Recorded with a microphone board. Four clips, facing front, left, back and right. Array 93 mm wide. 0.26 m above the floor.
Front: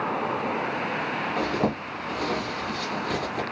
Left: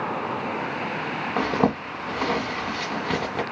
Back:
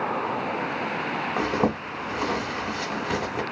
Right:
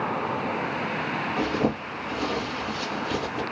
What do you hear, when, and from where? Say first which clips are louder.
1.4 s a zipper: left 4 dB, back 2 dB; 110° left, 1.1 m